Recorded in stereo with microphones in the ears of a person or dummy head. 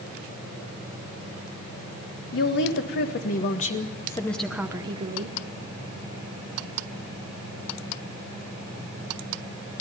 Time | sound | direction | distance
2.3 | a woman speaking | 60° left (ahead or behind) | 2.0 m